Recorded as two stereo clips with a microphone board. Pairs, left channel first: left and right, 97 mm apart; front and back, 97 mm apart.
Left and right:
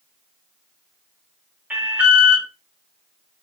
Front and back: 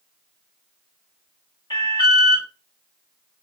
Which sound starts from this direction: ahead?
An alarm, at 1.7 s.